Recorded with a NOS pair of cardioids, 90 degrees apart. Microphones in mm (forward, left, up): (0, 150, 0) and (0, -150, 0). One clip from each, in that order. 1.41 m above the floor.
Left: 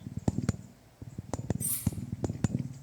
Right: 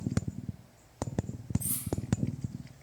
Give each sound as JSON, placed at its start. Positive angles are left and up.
{"t": 1.6, "sound": "cutlery clinking", "azimuth_deg": 10, "distance_m": 2.0}